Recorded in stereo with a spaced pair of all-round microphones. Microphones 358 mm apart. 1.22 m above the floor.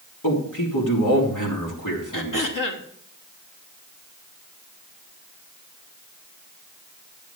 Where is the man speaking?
65° left (ahead or behind), 3 m.